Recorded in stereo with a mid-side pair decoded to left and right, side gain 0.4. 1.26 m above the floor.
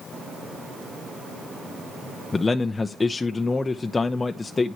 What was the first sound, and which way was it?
A man speaking, 35° left.